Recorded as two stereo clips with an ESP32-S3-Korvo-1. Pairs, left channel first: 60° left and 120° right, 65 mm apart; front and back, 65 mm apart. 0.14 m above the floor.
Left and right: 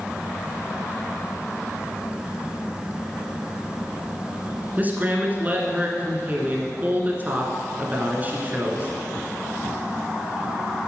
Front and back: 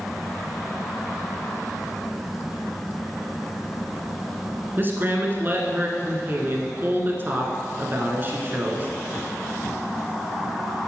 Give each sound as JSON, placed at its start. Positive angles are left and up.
{"t": 4.8, "sound": "a man speaking", "azimuth_deg": -160, "distance_m": 1.5}